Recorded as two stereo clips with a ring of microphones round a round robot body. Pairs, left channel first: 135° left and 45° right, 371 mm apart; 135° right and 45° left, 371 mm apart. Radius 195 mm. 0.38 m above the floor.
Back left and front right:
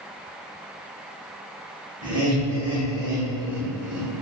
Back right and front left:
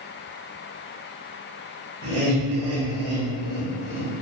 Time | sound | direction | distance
2.0 | laughter | 15° left | 1.6 m